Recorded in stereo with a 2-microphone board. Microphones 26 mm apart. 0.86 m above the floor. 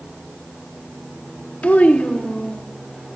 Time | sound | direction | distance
1.6 | a child speaking | 70° left (ahead or behind) | 0.7 m